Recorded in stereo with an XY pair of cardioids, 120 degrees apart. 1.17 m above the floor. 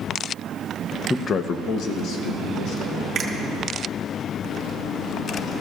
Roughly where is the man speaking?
Ahead.